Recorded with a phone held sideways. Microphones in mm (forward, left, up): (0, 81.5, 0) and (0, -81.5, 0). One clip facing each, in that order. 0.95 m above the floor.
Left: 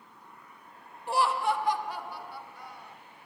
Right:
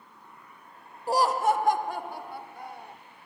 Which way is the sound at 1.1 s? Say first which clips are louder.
Right 4 dB; 35° right (ahead or behind).